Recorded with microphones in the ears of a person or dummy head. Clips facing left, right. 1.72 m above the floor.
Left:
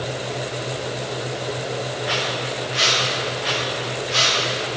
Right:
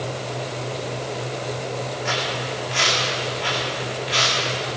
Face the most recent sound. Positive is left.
turn(degrees=-75)  # may be behind; listen again after turning